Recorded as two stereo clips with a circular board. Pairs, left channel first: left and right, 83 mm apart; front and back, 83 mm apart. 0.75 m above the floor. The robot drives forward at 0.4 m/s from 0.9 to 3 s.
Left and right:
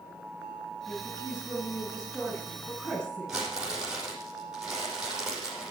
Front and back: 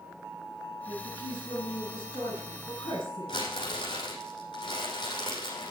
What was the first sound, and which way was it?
A woman speaking, 10° left.